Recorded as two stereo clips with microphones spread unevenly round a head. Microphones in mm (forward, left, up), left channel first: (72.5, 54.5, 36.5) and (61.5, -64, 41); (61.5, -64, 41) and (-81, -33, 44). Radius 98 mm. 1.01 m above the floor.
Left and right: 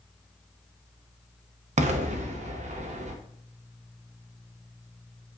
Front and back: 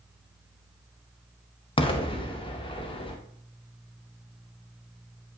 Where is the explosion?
70° right, 0.7 m.